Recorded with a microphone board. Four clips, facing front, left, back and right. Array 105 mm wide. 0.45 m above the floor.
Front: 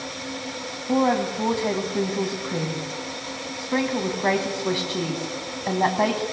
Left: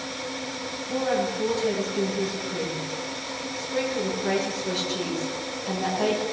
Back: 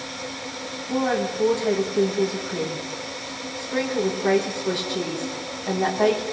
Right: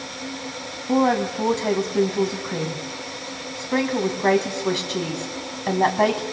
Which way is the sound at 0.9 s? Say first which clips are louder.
Right 6 dB, front 2 dB; 60° right.